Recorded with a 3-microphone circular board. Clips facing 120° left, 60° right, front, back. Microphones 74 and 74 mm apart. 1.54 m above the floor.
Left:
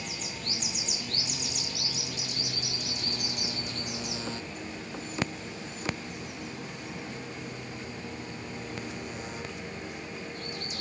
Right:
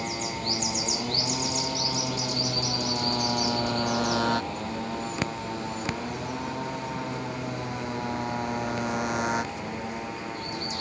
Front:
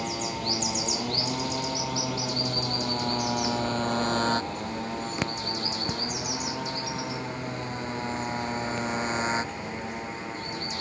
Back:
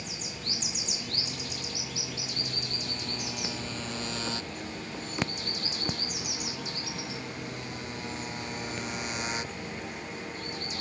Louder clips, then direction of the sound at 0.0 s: Right 8 dB, front 10 dB; 15° right.